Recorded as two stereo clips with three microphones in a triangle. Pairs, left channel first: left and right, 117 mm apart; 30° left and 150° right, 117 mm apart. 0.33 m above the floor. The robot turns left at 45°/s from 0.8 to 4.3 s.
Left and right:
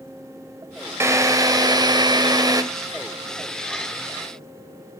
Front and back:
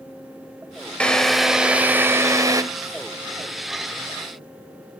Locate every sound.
1.0 s a drill: 45° right, 1.6 m; by 2.6 s 115° right, 1.6 m